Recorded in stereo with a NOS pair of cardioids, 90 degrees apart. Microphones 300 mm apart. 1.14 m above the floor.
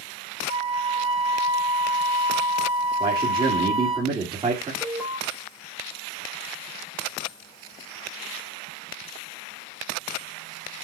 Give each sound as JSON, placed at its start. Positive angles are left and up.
{"t": 0.5, "sound": "a flute", "azimuth_deg": -20, "distance_m": 1.5}
{"t": 3.0, "sound": "a man speaking", "azimuth_deg": -15, "distance_m": 2.5}
{"t": 4.8, "sound": "an alarm", "azimuth_deg": 5, "distance_m": 4.0}